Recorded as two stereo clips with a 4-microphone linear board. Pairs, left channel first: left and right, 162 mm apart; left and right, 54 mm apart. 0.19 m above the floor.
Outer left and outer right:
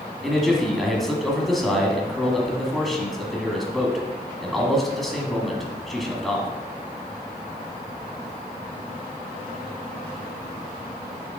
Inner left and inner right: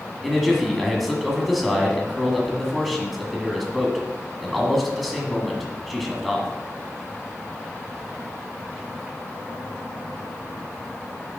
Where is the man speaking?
Centre (ahead or behind), 1.4 m.